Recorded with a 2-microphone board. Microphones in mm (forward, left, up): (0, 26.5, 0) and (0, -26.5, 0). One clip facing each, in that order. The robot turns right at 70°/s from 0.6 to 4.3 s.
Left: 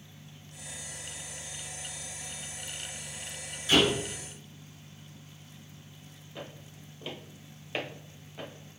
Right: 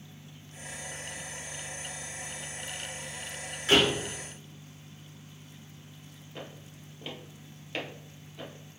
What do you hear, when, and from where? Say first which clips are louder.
3.7 s a door slam: right 1 dB; 80° right, 2.5 m; by 4.0 s 75° right (ahead or behind), 2.5 m
6.3 s footsteps: even; 25° right (ahead or behind), 1.8 m; by 8.5 s 25° left (ahead or behind), 1.8 m